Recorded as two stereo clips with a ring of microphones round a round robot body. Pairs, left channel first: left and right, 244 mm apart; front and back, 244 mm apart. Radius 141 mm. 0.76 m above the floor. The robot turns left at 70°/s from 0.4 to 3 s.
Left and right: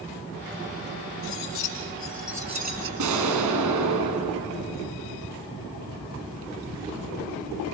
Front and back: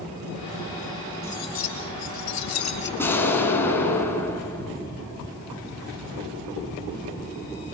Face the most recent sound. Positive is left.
turn(degrees=-80)